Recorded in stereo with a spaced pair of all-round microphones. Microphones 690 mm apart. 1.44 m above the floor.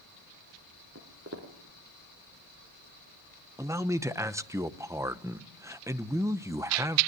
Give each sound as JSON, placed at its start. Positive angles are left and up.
{"t": 0.9, "sound": "footsteps", "side_deg": -20, "distance_m": 4.0}
{"t": 3.6, "sound": "a man speaking", "side_deg": -5, "distance_m": 0.8}